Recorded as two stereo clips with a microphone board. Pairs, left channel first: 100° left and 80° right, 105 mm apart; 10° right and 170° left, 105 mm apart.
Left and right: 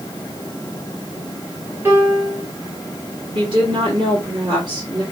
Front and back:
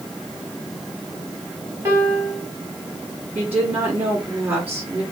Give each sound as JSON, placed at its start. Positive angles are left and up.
{"t": 1.9, "sound": "a piano", "azimuth_deg": -140, "distance_m": 1.5}
{"t": 3.4, "sound": "a woman speaking", "azimuth_deg": -120, "distance_m": 1.8}